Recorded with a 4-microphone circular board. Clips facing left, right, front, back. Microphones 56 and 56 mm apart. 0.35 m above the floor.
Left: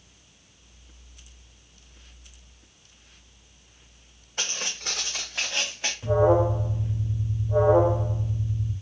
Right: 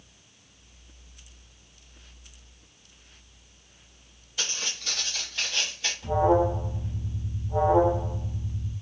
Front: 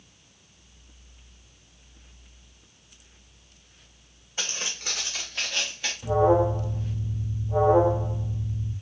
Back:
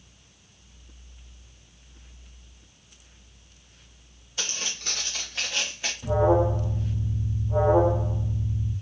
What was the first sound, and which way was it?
Footsteps, 60° left.